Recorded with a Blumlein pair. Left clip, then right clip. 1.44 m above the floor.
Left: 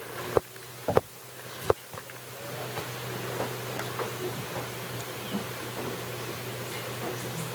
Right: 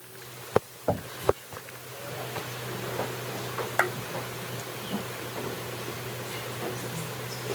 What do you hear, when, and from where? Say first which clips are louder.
0.9 s knocking: left 4 dB; 10° right
3.8 s a clap: right 14 dB; 35° right